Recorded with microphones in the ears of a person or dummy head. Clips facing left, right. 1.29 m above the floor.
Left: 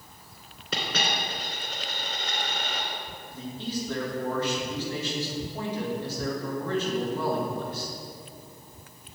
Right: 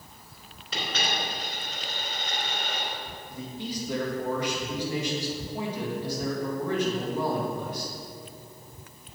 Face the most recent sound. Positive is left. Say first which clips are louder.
# left 2 dB
turn(degrees=-15)  # may be behind; listen again after turning